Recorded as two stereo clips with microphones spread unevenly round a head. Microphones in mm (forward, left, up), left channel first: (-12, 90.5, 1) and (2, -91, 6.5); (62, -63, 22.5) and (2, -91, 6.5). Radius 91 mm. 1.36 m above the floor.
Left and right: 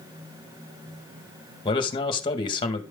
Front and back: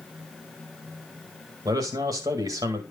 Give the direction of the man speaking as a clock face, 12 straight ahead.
7 o'clock.